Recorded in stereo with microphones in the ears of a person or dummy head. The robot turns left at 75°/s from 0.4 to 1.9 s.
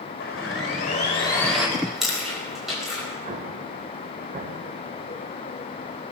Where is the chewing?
10° left (ahead or behind), 5 m; by 3.0 s centre (ahead or behind), 5 m.